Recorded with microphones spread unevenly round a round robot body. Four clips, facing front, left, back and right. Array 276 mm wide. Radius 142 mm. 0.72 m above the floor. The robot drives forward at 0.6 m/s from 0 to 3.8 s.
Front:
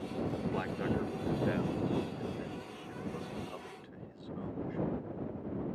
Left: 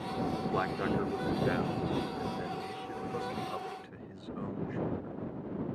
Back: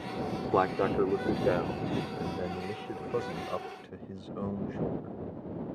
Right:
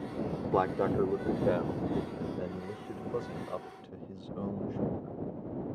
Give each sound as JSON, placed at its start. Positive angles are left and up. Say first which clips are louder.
{"t": 0.5, "sound": "a man speaking", "louder": "right 6 dB, back 13 dB", "azimuth_deg": -155}